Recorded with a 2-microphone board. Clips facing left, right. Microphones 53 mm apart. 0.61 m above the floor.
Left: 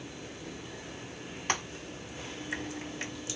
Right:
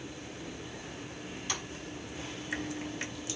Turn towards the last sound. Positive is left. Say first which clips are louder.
# left 7 dB
turn(degrees=50)  # may be behind; listen again after turning